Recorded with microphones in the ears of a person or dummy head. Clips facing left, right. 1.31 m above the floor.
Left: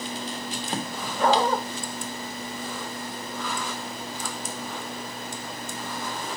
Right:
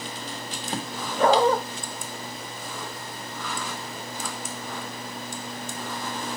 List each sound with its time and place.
1.2 s a dog barking: 50° right (ahead or behind), 1.6 m